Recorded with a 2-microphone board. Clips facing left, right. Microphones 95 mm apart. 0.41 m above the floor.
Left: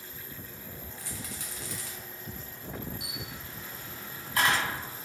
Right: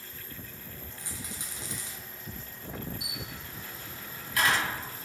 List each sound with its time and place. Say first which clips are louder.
1.0 s a rattle: even; 20° right (ahead or behind), 1.0 m
3.0 s a camera shutter: even; 30° left (ahead or behind), 1.5 m